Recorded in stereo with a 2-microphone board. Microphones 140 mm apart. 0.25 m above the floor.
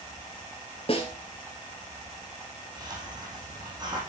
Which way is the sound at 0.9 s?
40° left (ahead or behind).